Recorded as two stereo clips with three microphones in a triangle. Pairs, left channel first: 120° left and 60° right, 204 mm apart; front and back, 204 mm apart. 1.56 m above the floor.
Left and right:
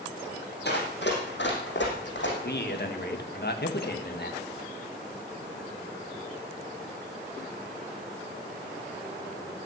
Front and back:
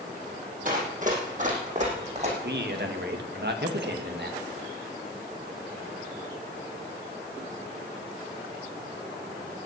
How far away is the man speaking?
About 2.5 m.